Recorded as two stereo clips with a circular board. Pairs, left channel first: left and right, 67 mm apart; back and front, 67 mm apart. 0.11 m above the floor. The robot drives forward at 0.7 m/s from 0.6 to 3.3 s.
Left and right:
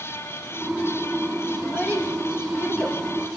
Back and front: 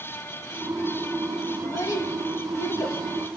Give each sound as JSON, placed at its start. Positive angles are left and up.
{"t": 1.6, "sound": "a child speaking", "azimuth_deg": 160, "distance_m": 3.0}